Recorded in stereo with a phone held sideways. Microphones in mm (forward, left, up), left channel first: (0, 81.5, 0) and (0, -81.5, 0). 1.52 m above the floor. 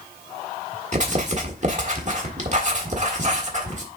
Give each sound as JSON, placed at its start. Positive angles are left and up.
{"t": 0.9, "sound": "writing", "side_deg": -50, "distance_m": 1.5}